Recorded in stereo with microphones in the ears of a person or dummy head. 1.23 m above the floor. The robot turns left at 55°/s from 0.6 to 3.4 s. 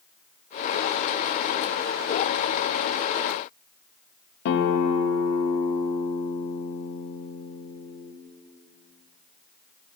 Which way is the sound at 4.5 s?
75° left (ahead or behind).